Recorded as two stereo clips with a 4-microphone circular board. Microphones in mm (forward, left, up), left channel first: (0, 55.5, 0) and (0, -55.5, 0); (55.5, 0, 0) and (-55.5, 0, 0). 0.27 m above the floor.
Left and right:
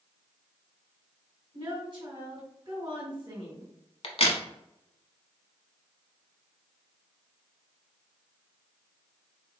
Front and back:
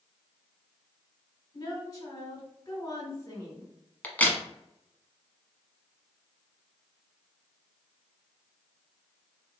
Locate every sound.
1.5 s a woman speaking: 50° right, 2.5 m
4.0 s a crack: 75° left, 1.0 m